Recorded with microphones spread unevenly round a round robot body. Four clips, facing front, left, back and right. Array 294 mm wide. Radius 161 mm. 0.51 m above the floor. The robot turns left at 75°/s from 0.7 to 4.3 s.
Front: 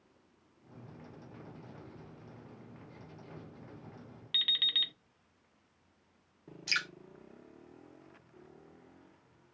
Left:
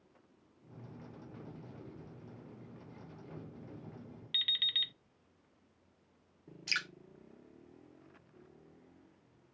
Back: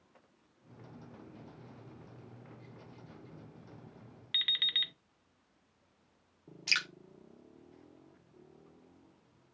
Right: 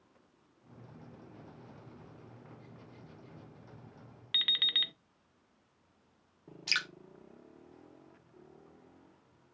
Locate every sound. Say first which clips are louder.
4.3 s an alarm clock: right 6 dB, even; 80° right, 0.6 m
6.7 s dripping: right 3 dB, even; 175° left, 0.5 m